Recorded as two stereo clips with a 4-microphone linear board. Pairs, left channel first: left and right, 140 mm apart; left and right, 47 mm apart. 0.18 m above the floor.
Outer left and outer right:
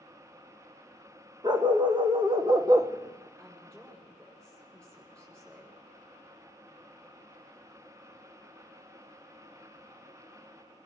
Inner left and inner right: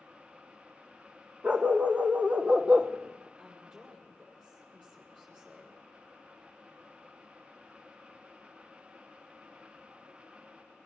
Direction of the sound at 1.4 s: 30° right (ahead or behind).